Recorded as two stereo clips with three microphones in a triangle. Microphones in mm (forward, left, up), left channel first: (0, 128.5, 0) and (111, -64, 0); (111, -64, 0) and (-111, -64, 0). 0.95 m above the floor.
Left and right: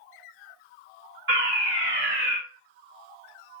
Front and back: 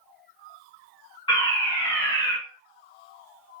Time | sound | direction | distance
1.3 | a fire alarm | 65° right | 2.5 m